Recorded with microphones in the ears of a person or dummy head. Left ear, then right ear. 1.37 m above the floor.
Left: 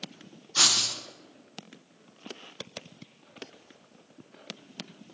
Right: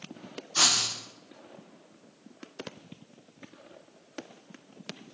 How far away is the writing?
About 0.6 m.